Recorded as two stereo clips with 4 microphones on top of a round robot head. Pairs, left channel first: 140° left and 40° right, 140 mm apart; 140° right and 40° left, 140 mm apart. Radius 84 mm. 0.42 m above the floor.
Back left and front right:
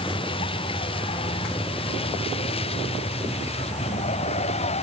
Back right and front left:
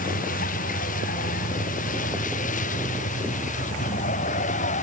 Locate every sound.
0.0 s a vehicle: 165° right; by 4.8 s 175° right